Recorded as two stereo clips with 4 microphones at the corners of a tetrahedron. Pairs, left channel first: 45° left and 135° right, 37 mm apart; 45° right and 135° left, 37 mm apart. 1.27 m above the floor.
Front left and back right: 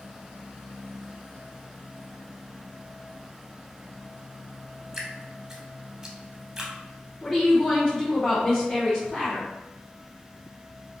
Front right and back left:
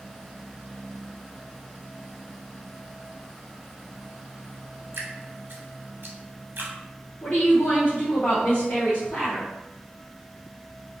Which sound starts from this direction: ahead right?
A woman speaking, at 7.2 s.